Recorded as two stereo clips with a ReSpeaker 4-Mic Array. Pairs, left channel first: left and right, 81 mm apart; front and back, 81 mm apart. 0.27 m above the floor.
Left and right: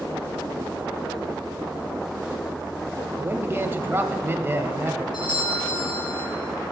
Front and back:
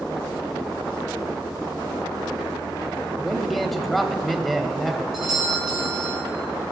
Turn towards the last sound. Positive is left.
turn(degrees=95)